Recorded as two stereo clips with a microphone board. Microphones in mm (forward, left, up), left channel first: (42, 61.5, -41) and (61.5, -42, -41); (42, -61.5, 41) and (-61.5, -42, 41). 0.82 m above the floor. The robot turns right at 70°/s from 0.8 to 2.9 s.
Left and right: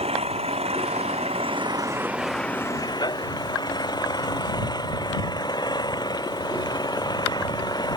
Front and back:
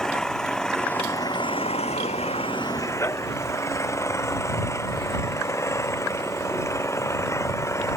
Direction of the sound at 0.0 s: 95° right.